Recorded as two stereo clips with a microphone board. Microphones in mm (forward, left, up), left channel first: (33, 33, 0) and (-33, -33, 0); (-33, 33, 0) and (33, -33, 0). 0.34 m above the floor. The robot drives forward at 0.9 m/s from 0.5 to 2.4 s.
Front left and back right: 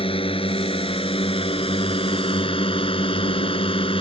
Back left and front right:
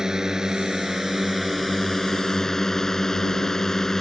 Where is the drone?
40° left; by 4.0 s 50° left.